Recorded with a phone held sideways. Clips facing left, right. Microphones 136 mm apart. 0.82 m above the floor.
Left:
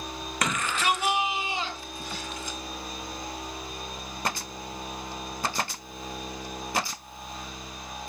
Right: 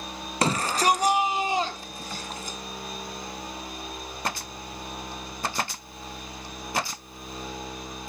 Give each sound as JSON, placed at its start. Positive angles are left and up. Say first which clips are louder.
{"t": 0.4, "sound": "a shout", "louder": "right 5 dB", "side_deg": -30, "distance_m": 0.6}